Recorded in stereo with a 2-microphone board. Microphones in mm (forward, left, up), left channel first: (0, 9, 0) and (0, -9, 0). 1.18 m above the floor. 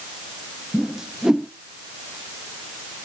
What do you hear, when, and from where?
0.7 s a whoosh: 30° right (ahead or behind), 0.7 m